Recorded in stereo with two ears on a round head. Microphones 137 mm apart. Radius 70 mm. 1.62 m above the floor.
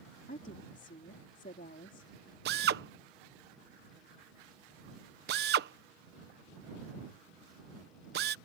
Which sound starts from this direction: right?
A drill, at 2.5 s.